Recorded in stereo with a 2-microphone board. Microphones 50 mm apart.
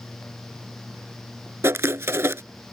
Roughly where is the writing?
Right.